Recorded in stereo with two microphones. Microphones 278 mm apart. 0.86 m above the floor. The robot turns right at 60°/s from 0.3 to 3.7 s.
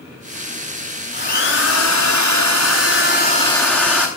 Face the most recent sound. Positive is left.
turn(degrees=175)